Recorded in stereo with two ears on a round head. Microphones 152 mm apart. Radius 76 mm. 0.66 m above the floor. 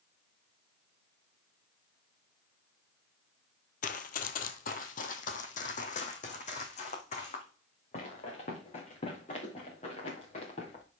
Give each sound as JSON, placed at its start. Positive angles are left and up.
{"t": 3.8, "sound": "running footsteps", "side_deg": 50, "distance_m": 0.9}